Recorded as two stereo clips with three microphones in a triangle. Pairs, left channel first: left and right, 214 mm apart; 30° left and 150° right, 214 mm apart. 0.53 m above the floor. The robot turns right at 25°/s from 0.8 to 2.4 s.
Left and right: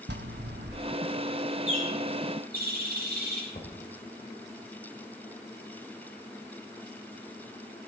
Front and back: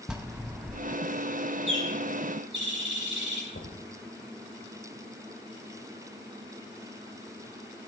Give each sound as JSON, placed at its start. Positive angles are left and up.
{"t": 0.1, "sound": "a bell", "azimuth_deg": -65, "distance_m": 1.0}
{"t": 1.7, "sound": "a bird", "azimuth_deg": -145, "distance_m": 5.0}
{"t": 3.5, "sound": "knocking", "azimuth_deg": 40, "distance_m": 2.0}